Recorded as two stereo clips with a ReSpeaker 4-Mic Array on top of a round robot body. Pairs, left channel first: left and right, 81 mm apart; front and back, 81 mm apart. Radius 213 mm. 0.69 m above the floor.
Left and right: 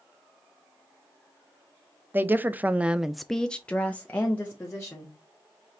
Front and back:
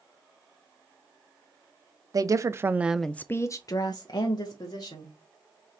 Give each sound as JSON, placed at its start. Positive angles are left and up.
{"t": 2.1, "sound": "a woman speaking", "azimuth_deg": -150, "distance_m": 0.9}